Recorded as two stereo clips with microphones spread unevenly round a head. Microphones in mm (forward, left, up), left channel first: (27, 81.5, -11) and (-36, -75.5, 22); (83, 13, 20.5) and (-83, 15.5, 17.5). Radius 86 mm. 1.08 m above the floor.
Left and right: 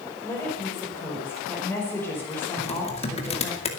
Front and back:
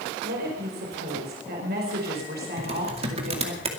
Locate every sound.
0.2 s a woman speaking: 150° left, 4.5 m
2.6 s typing on a keyboard: 125° left, 2.5 m